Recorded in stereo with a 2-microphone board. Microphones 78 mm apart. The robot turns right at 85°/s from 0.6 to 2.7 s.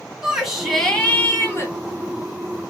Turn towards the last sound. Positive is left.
turn(degrees=170)